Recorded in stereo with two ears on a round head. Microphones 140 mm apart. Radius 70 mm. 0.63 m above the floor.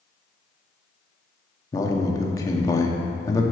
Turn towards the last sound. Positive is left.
turn(degrees=20)  # may be behind; listen again after turning